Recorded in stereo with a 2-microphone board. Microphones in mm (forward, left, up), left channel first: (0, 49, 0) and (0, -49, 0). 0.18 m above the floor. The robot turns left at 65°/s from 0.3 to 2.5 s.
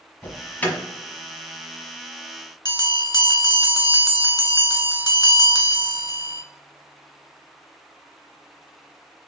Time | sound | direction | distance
0.2 | an alarm | 20° left (ahead or behind) | 1.3 m
2.6 | a bell | 40° left (ahead or behind) | 0.7 m